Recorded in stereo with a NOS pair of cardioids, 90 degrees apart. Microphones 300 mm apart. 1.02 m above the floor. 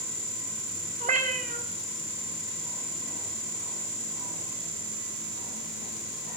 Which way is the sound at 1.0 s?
25° right.